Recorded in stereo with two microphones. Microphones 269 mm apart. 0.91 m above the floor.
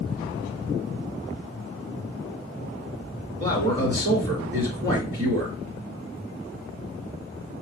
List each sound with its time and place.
3.4 s a man speaking: 55° right (ahead or behind), 2 m